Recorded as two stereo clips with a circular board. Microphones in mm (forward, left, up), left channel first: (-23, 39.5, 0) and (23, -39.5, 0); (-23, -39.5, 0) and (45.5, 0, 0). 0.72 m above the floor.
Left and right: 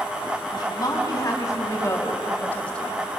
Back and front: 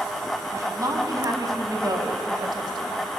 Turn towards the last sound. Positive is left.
turn(degrees=35)